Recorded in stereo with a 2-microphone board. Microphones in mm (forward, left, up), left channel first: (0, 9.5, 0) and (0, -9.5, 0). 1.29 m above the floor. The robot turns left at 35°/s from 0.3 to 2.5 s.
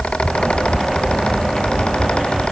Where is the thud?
No thud in this recording.